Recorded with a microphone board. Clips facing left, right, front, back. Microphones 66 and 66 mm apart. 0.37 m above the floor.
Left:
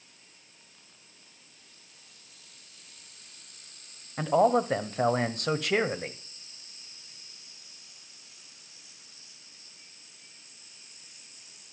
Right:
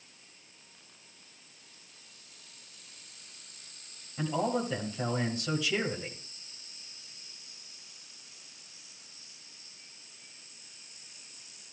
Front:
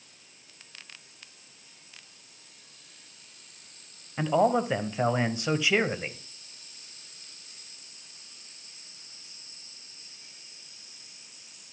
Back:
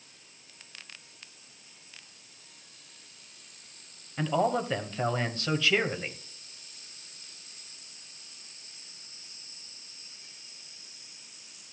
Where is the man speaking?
70° left, 1.5 m.